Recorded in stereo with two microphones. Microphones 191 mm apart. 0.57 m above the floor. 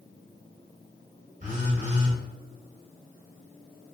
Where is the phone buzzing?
45° right (ahead or behind), 0.8 m.